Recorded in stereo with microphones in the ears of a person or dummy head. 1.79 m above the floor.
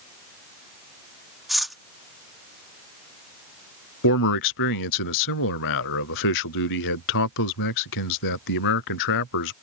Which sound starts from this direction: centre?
Cutlery clinking, at 1.5 s.